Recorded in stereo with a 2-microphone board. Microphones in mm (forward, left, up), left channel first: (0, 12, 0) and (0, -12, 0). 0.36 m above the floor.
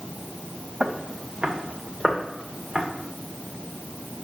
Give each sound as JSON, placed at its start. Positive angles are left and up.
{"t": 0.8, "sound": "footsteps", "side_deg": -50, "distance_m": 1.4}